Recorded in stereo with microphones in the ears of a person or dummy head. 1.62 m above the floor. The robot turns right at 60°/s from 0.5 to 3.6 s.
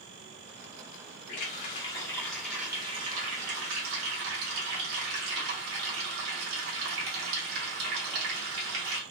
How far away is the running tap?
About 1.1 m.